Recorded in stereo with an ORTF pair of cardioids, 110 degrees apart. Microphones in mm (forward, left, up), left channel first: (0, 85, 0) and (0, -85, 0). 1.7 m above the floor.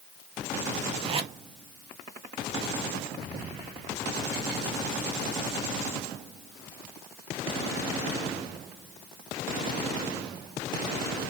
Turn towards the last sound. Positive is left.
turn(degrees=-35)